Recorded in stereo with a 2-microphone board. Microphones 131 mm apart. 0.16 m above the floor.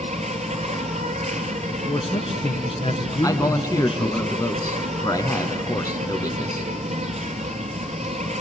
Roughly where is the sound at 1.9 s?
Left.